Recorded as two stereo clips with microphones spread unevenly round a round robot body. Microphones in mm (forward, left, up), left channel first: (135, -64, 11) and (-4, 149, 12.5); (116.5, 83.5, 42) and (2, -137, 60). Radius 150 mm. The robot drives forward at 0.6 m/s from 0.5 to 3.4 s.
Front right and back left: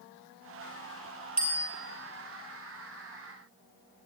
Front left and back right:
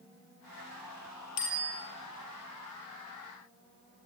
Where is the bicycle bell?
65° left, 6.5 m; by 1.7 s 70° left, 6.5 m.